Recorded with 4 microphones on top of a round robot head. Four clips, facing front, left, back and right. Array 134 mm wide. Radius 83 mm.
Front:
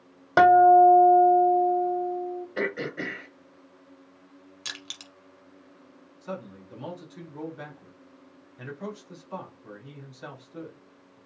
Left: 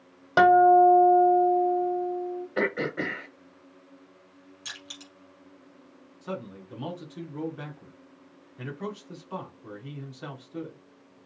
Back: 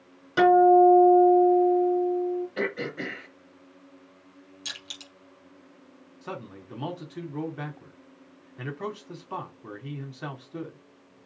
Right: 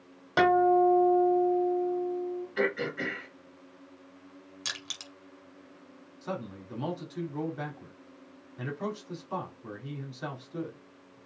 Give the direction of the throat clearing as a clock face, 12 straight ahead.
10 o'clock.